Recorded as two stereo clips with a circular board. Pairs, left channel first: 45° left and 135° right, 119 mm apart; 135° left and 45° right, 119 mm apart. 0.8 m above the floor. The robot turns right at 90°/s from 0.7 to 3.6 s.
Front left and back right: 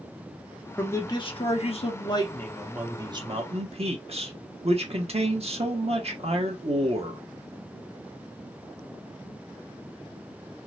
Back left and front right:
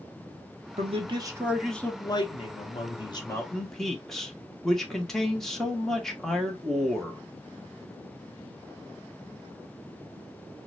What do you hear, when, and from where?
0.8 s a man speaking: 35° right, 1.2 m; by 7.2 s 140° right, 1.2 m